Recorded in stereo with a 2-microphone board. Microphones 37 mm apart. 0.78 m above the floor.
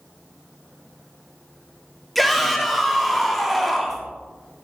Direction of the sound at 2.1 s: 5° left (ahead or behind).